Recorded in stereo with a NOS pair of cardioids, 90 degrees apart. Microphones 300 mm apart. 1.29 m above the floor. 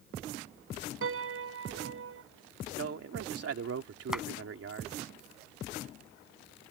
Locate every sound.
1.0 s a piano: 50° right
2.8 s a man speaking: 50° right
4.1 s a clap: straight ahead